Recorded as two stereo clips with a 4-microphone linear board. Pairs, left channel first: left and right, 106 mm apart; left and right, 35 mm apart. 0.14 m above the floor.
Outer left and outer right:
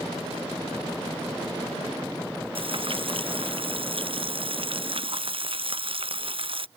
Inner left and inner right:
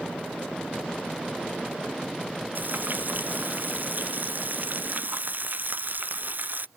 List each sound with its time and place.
2.5 s frying: 60° right (ahead or behind)